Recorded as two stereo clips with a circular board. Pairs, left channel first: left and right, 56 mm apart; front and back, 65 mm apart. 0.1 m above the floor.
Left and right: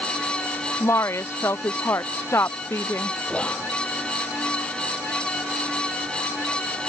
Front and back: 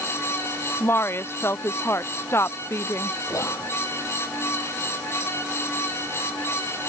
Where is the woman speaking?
55° left; by 3.2 s 45° left.